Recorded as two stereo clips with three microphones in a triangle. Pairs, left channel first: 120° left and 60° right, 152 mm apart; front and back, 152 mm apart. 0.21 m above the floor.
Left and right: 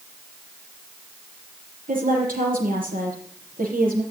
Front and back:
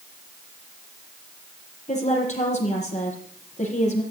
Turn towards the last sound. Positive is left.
turn(degrees=-40)